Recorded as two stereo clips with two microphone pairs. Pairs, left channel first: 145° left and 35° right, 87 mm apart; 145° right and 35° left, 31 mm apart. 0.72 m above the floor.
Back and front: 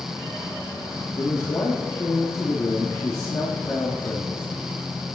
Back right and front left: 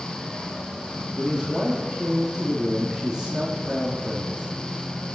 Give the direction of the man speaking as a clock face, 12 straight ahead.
9 o'clock.